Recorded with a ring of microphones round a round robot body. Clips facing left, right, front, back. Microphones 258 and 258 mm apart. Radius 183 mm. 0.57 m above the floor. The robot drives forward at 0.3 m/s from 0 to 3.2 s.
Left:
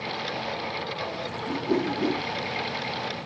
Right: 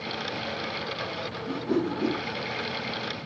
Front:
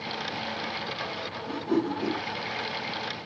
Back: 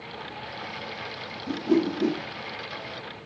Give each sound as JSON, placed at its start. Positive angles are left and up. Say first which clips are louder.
{"t": 1.5, "sound": "a whoosh", "louder": "left 1 dB, back 4 dB", "azimuth_deg": 175, "distance_m": 0.9}